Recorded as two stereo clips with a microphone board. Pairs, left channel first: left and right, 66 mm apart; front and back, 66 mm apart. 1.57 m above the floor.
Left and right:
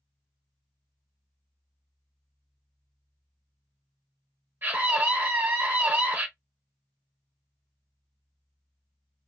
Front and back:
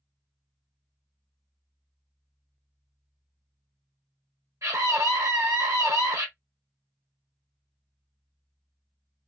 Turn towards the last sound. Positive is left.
turn(degrees=-145)